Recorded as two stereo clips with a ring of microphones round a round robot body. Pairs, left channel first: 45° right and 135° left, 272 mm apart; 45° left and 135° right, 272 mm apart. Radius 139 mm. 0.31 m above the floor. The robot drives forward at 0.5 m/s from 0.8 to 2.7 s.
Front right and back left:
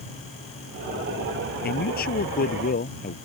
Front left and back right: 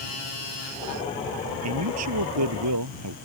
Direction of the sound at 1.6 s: 100° right.